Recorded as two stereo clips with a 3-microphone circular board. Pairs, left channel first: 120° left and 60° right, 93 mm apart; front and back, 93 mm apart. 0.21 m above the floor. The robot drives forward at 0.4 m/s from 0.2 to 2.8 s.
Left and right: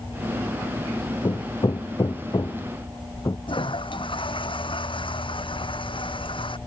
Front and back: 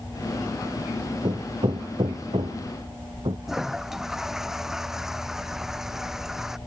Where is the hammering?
160° left; by 3.4 s 165° left.